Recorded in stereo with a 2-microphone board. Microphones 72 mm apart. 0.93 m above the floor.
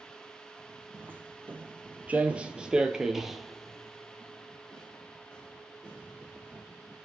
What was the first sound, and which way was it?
Footsteps, 25° right (ahead or behind).